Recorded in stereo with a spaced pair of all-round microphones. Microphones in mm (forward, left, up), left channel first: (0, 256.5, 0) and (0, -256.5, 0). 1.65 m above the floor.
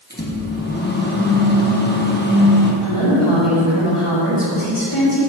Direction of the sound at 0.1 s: 20° left (ahead or behind).